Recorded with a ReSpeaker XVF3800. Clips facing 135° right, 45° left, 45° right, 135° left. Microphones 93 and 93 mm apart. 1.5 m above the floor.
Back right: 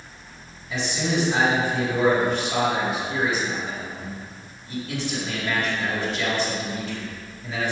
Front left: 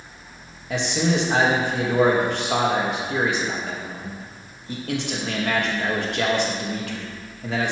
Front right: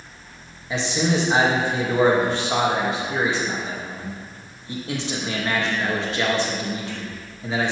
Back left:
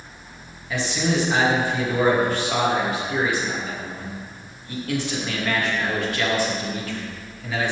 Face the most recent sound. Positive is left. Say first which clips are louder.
# front left 3 dB, front right 1 dB
turn(degrees=20)